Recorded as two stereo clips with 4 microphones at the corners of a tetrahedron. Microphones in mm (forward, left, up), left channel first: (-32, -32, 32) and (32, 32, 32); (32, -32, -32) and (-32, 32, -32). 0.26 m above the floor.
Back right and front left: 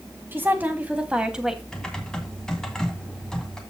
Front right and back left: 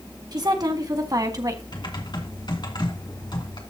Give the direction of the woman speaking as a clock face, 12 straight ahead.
8 o'clock.